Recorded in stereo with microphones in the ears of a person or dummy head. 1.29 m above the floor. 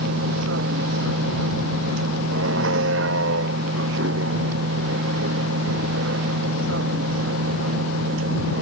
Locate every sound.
0.0 s a vehicle: 80° right